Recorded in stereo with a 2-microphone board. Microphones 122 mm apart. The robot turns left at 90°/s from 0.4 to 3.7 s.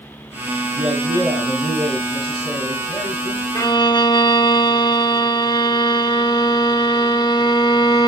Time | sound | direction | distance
0.8 | a man speaking | 90° right | 4.5 m
3.5 | a violin | 25° left (ahead or behind) | 0.6 m